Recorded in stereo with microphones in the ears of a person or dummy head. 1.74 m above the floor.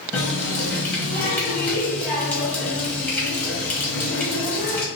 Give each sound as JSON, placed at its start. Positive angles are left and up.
{"t": 0.1, "sound": "a running tap", "side_deg": 10, "distance_m": 1.3}